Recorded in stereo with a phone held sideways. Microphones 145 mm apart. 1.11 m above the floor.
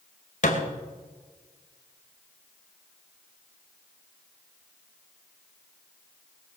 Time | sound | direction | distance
0.4 | a thud | 55° left (ahead or behind) | 2.5 m